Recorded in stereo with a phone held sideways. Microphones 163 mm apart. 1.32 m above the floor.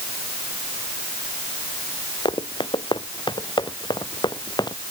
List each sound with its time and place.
2.2 s running footsteps: 30° left (ahead or behind); by 4.8 s 25° left (ahead or behind)